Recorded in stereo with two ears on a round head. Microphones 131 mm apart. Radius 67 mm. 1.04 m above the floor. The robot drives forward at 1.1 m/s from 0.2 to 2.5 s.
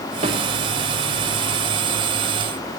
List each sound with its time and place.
0.2 s a snare drum: 40° right (ahead or behind), 2.5 m